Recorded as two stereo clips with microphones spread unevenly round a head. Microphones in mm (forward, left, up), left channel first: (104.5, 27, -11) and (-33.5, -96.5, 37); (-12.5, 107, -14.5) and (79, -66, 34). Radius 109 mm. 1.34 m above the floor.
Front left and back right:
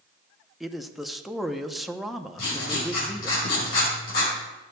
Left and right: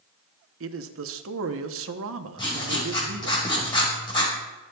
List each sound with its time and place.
0.6 s a man speaking: 50° right, 0.9 m
2.4 s writing: 45° left, 5.5 m